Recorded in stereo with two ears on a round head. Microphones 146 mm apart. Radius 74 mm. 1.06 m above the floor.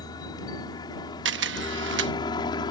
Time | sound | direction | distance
0.0 | a helicopter | 25° left (ahead or behind) | ?
1.2 | a camera shutter | 85° right | ?